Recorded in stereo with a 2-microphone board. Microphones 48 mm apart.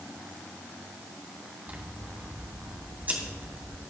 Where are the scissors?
35° right (ahead or behind), 2.5 m.